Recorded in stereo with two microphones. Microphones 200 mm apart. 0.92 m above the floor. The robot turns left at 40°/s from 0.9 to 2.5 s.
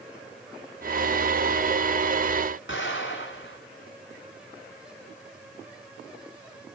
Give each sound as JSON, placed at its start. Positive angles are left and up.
{"t": 2.7, "sound": "an explosion", "side_deg": 75, "distance_m": 5.0}